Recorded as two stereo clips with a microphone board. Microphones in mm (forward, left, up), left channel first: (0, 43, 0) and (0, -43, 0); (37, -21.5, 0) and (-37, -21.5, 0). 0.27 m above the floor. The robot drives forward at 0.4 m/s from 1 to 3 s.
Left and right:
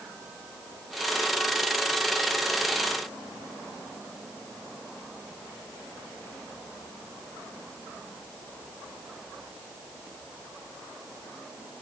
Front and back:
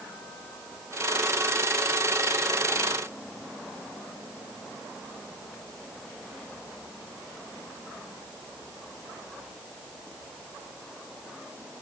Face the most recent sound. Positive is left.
No sound to turn to.